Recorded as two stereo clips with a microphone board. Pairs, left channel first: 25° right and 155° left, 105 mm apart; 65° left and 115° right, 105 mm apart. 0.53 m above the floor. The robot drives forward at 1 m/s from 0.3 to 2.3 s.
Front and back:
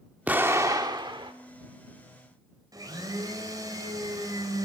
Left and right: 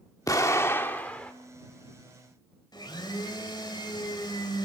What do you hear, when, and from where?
0.3 s an explosion: 95° left, 1.2 m; by 1.3 s 145° left, 1.6 m
2.7 s a blender: 110° left, 3 m